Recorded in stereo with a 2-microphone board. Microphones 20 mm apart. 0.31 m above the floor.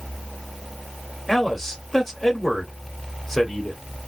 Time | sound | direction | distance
1.3 | a man speaking | 15° left (ahead or behind) | 1.2 m